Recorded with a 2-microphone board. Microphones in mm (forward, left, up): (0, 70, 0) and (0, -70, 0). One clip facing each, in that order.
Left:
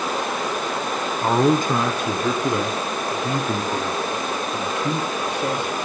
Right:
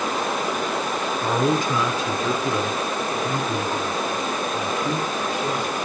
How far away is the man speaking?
About 1.8 m.